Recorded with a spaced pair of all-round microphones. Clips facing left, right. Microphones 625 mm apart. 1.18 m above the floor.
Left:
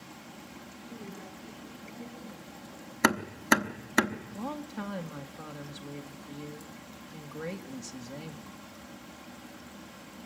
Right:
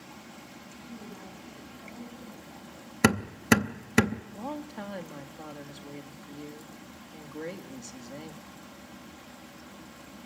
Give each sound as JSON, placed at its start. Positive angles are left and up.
{"t": 0.8, "sound": "a woman speaking", "side_deg": 45, "distance_m": 8.5}
{"t": 3.0, "sound": "hammering", "side_deg": -55, "distance_m": 0.8}
{"t": 4.3, "sound": "a woman speaking", "side_deg": 35, "distance_m": 1.6}